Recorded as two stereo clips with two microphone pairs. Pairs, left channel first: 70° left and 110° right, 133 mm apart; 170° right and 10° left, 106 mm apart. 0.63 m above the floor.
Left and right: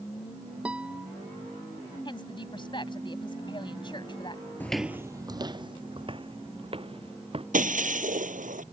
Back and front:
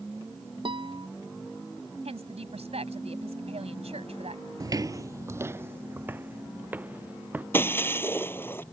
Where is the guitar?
30° right.